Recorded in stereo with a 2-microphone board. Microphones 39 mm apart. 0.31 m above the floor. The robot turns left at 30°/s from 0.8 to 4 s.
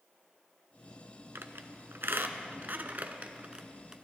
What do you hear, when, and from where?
1.4 s a squeak: 85° right, 0.6 m; by 3.9 s 15° right (ahead or behind), 0.6 m